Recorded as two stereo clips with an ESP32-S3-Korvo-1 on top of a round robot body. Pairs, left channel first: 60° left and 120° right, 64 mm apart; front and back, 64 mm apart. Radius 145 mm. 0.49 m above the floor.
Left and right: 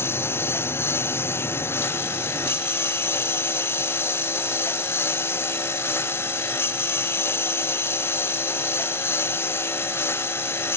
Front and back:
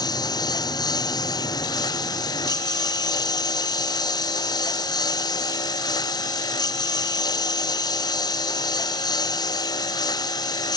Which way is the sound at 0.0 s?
5° left.